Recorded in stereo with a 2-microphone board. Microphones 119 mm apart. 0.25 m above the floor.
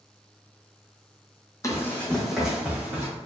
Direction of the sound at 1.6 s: 25° left (ahead or behind).